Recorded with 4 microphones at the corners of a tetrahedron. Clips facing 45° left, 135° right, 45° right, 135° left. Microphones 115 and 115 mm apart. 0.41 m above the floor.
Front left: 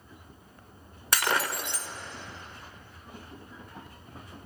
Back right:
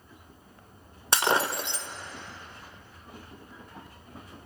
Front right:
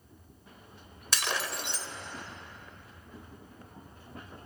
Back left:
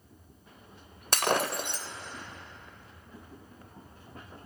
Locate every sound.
1.1 s breaking glass: 160° left, 0.5 m